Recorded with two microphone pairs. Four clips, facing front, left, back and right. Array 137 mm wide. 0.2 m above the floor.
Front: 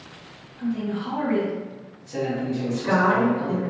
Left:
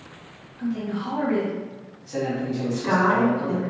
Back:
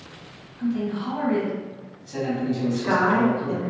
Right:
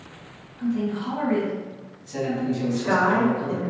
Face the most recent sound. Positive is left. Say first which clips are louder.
# left 1 dB, front 1 dB
turn(degrees=130)